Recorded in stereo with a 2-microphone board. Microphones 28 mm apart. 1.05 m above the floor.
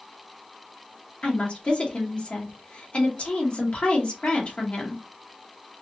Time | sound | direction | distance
1.2 | a woman speaking | 45° left (ahead or behind) | 2 m